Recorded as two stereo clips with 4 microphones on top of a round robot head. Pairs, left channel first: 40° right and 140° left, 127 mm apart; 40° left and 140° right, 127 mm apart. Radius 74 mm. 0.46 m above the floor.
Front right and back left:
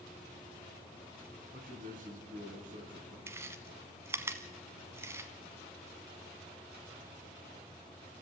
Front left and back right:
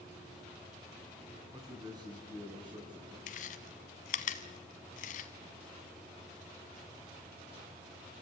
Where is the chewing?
70° left, 0.9 m.